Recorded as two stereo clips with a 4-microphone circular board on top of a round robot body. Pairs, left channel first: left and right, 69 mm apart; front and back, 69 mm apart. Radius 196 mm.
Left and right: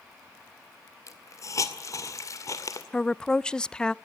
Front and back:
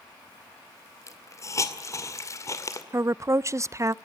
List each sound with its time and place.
1.1 s a hiss: 45° left, 2 m
2.9 s a woman speaking: 165° left, 0.6 m